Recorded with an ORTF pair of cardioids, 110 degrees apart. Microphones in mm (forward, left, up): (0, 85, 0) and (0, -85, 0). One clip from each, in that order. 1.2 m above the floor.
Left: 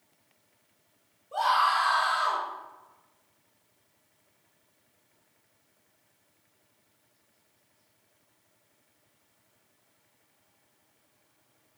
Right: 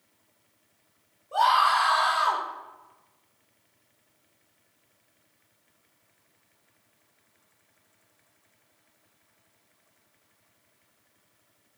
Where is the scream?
20° right, 3 m.